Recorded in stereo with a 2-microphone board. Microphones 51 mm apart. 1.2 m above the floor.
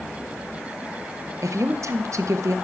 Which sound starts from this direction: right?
A woman speaking, at 1.4 s.